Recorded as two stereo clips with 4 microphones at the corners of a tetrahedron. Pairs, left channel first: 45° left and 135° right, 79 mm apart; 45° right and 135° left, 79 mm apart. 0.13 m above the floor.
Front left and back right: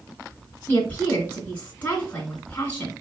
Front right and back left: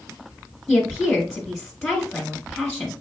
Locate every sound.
0.7 s a woman speaking: 20° left, 1.6 m